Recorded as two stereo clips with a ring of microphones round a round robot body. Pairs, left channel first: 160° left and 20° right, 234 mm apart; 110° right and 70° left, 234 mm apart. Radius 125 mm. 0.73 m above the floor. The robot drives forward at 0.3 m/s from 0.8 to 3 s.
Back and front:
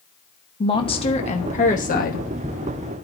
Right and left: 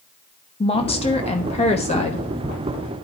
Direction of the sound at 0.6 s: 155° right.